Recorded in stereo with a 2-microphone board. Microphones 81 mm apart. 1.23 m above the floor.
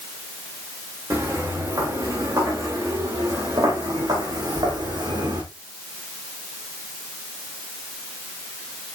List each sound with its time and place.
1.1 s footsteps: 35° right (ahead or behind), 5.5 m; by 5.4 s 70° right (ahead or behind), 4 m